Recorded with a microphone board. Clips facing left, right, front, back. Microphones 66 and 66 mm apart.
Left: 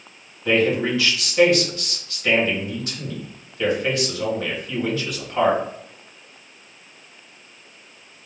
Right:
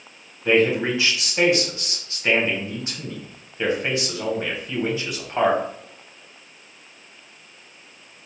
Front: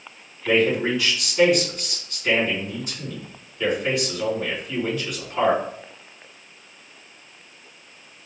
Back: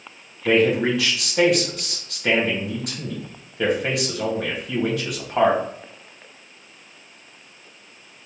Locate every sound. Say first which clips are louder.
0.5 s a man speaking: right 1 dB, back 2 dB; 160° right, 1.4 m